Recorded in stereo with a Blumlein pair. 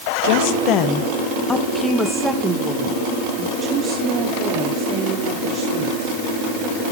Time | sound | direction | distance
0.2 | a woman speaking | 50° left | 1.6 m